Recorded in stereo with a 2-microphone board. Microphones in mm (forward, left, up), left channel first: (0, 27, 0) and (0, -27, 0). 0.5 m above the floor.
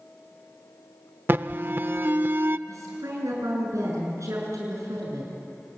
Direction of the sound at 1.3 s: 40° right (ahead or behind).